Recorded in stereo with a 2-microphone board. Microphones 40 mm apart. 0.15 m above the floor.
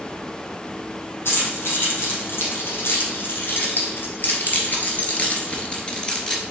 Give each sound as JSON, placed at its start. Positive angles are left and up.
{"t": 1.2, "sound": "keys jangling", "side_deg": 70, "distance_m": 3.0}